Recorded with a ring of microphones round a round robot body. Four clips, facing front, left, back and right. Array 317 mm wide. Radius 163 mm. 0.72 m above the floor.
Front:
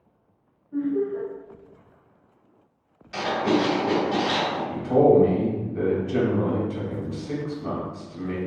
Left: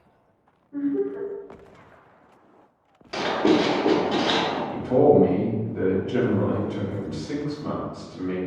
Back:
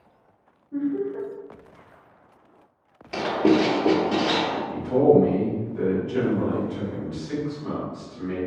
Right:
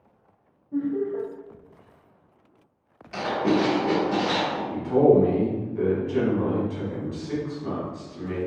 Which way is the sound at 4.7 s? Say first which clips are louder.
Even, front 1 dB; 50° left.